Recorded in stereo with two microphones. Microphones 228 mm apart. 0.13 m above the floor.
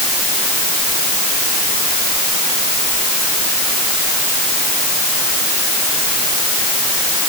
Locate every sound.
Only background noise.